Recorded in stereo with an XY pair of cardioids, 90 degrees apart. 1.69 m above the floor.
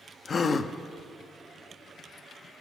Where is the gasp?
45° left, 0.6 m.